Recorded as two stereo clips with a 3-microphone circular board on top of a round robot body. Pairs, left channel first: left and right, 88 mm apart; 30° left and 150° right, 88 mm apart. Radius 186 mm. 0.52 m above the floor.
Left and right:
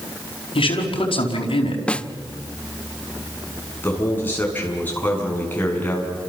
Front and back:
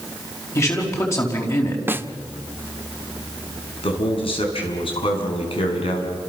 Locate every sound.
0.6 s a man speaking: 85° left, 5 m
1.9 s a snare drum: 160° left, 1.1 m
3.8 s a man speaking: 20° left, 6 m